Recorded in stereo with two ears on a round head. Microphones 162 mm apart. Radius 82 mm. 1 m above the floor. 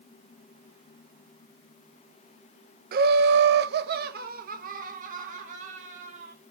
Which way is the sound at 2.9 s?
50° right (ahead or behind).